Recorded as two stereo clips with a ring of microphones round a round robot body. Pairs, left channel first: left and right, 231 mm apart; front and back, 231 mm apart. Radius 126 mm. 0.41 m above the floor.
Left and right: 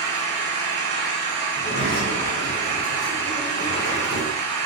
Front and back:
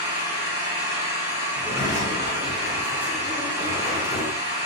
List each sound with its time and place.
0.0 s an engine running: 120° right, 1.5 m
1.5 s a sliding door: 75° left, 1.8 m